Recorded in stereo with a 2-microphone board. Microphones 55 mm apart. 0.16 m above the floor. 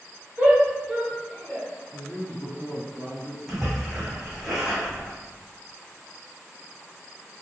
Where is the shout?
25° right (ahead or behind), 1.2 m; by 1.7 s 10° left (ahead or behind), 1.6 m.